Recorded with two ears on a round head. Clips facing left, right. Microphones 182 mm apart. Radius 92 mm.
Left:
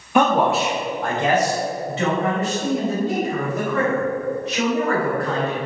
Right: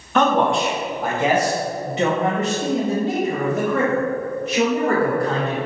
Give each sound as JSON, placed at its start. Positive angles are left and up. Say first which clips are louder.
{"t": 0.1, "sound": "a man speaking", "louder": "even", "side_deg": 10, "distance_m": 1.0}